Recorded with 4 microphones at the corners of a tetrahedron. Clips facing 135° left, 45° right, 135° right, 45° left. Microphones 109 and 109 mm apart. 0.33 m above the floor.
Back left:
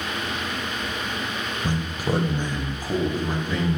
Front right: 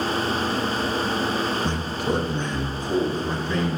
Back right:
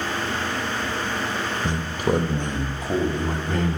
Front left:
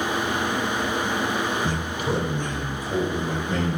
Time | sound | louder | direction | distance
1.6 | a man speaking | front right 1 dB, back right 2 dB | 170° right | 1.0 m